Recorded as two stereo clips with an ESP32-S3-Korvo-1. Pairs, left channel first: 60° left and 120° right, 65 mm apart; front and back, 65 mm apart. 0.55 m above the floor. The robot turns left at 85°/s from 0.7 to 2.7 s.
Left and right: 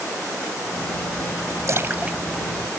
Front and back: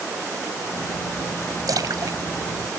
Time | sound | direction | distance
1.7 | a splash | 155° right | ?